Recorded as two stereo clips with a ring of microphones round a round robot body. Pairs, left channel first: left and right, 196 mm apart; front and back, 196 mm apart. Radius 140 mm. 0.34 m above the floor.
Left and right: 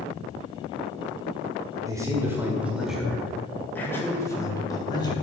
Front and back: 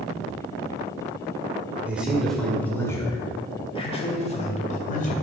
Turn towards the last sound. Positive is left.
turn(degrees=30)